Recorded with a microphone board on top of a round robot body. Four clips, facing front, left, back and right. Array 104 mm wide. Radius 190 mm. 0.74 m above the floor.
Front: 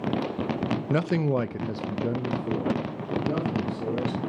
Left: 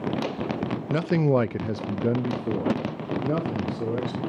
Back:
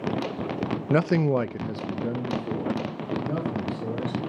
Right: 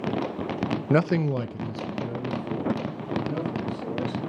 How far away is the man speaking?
About 0.5 m.